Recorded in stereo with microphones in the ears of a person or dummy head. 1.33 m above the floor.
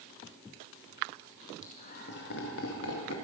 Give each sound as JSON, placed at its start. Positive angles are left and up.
{"t": 1.6, "sound": "laughter", "side_deg": 35, "distance_m": 1.9}